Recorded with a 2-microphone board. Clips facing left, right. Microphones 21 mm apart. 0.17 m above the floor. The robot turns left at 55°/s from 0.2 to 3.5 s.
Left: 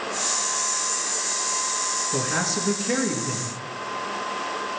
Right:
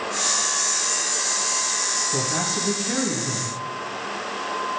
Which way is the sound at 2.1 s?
65° left.